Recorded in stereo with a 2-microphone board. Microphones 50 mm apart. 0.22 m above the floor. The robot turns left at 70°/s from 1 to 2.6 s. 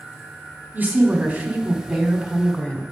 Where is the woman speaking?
110° right, 1.4 m; by 2.8 s 140° left, 1.4 m.